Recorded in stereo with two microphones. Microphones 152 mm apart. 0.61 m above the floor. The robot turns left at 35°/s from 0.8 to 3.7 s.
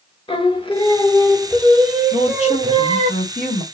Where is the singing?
35° left, 0.6 m; by 3.1 s 45° right, 0.6 m.